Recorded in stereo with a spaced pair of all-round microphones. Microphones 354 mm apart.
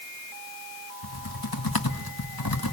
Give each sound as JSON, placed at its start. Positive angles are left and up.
{"t": 1.0, "sound": "typing on a keyboard", "side_deg": 90, "distance_m": 1.6}